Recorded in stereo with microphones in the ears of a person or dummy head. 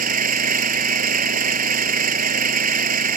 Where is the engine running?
45° right (ahead or behind).